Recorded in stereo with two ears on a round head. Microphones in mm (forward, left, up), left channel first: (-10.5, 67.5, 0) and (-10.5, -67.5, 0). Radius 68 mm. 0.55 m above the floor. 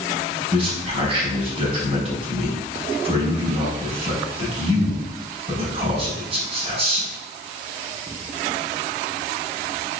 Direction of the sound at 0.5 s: 40° right (ahead or behind).